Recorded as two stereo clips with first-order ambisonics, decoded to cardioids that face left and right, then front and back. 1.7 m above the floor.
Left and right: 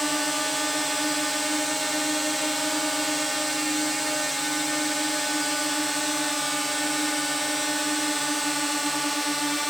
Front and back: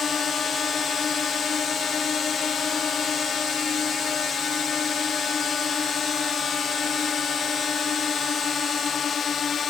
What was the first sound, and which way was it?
A drone, 5° right.